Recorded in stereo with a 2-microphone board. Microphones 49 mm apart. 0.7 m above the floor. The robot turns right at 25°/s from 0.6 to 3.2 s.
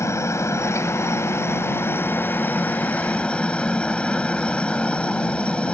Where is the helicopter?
90° left; by 5.7 s 155° left.